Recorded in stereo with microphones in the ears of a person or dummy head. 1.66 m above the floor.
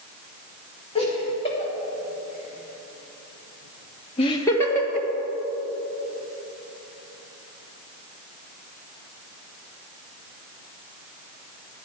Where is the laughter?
30° left (ahead or behind), 2.5 m; by 5.1 s 5° left (ahead or behind), 1.3 m.